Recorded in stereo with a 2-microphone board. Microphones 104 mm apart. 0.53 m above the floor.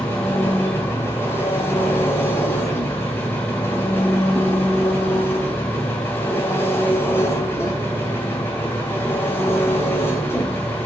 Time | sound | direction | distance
0.0 | an engine running | 25° left (ahead or behind) | 3.5 m